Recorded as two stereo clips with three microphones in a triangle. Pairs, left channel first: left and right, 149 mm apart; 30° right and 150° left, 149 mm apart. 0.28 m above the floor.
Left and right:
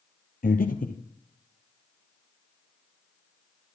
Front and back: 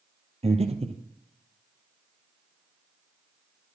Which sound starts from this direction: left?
Breathing, at 0.4 s.